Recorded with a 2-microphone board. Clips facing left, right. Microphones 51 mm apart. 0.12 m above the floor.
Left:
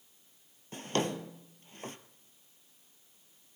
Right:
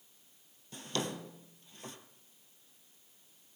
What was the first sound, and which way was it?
A drawer, 40° left (ahead or behind).